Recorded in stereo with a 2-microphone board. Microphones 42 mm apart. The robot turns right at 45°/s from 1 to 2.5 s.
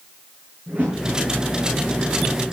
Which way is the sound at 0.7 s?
40° right (ahead or behind).